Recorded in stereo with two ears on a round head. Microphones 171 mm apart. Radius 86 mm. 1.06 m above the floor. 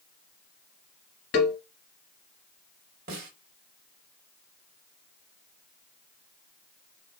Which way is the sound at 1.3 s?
65° left (ahead or behind).